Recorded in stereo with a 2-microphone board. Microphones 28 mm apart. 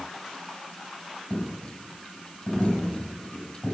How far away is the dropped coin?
About 4.5 m.